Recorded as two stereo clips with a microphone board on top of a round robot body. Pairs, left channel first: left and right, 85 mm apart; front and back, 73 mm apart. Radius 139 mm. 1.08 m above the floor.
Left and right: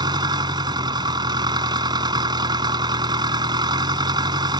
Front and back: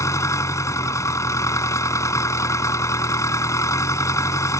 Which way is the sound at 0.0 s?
50° right.